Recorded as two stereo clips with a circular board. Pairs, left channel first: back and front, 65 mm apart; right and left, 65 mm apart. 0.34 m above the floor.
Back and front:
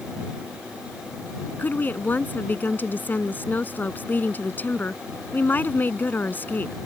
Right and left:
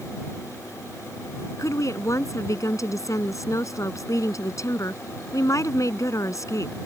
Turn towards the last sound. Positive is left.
turn(degrees=-120)